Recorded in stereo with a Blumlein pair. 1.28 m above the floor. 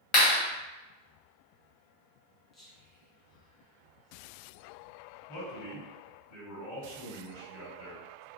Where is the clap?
30° left, 1.6 m.